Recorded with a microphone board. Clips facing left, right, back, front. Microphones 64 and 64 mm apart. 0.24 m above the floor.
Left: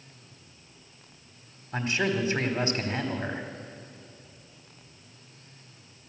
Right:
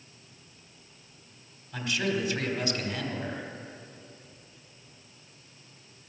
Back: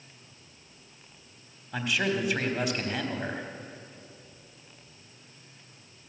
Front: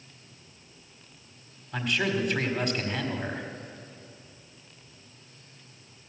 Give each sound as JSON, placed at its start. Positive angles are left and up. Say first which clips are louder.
{"t": 1.7, "sound": "a man speaking", "louder": "left 2 dB, even", "azimuth_deg": 95, "distance_m": 1.5}